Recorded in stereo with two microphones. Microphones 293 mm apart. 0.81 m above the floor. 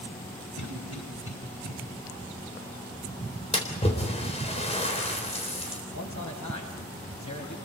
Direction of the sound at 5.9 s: 80° left.